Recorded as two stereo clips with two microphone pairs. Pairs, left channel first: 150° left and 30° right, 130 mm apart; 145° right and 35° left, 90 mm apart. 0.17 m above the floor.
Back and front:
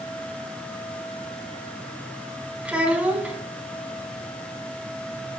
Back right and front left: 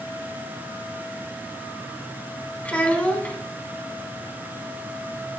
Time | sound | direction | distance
2.6 | a child speaking | 95° right | 0.7 m